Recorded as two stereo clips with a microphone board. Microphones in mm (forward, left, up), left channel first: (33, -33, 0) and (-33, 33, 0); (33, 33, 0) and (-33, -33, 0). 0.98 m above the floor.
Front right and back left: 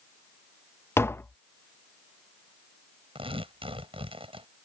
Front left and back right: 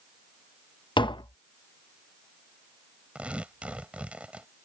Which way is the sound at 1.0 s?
20° left.